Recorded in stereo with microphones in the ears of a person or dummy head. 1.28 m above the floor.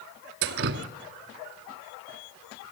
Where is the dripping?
55° right (ahead or behind), 1.1 m.